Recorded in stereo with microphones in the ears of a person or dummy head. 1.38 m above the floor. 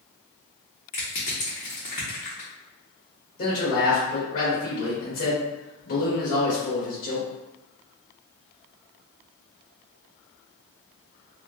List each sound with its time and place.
0.9 s crushing: 30° left (ahead or behind), 1.0 m
3.4 s a man speaking: 50° left (ahead or behind), 1.6 m